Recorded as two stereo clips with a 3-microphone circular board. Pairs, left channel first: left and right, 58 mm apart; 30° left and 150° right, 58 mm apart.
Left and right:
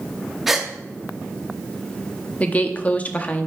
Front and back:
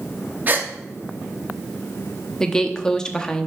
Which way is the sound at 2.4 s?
90° left.